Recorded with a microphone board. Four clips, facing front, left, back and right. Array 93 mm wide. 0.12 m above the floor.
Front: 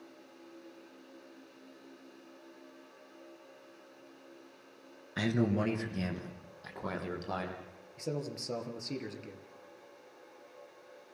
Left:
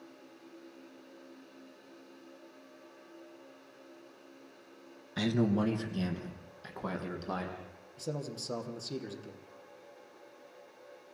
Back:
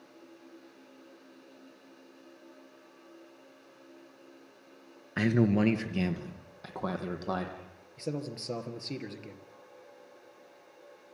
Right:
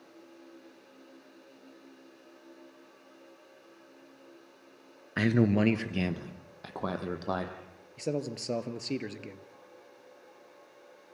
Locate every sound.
5.2 s a man speaking: 120° right, 1.3 m
8.0 s a man speaking: 100° right, 2.5 m